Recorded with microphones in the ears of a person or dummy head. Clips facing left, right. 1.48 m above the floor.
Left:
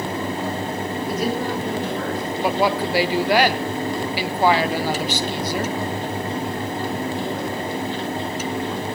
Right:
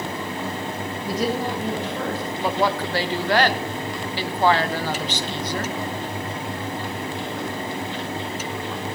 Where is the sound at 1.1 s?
30° right (ahead or behind), 6.5 m.